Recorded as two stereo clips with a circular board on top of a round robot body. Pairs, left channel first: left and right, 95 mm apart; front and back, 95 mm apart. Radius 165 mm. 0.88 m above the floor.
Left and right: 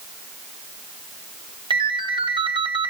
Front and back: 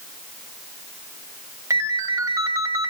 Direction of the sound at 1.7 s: 120° right.